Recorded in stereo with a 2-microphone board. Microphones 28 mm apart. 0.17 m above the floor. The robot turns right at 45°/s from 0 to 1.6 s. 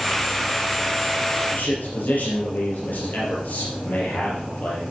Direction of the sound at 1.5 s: 70° left (ahead or behind).